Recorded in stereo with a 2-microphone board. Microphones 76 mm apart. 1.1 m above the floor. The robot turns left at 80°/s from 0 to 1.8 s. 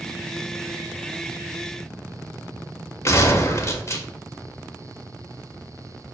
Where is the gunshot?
40° left (ahead or behind), 0.6 m.